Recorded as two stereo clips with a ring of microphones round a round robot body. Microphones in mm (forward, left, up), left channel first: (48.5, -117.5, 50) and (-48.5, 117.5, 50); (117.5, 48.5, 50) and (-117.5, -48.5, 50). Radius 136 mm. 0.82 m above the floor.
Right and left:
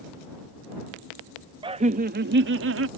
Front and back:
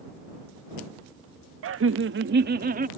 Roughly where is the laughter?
Behind.